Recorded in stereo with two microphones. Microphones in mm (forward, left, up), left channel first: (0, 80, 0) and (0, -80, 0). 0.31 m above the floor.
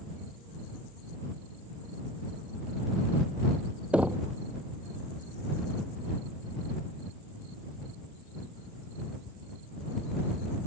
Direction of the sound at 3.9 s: 5° right (ahead or behind).